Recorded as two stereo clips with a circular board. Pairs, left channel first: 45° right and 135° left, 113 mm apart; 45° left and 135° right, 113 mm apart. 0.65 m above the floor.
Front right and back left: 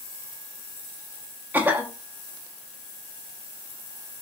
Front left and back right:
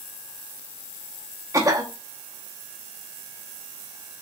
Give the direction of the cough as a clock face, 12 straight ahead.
6 o'clock.